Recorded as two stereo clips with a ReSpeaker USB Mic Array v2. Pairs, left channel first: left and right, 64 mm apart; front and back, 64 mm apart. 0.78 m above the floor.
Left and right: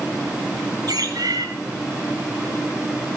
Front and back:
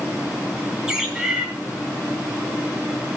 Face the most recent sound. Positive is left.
turn(degrees=-100)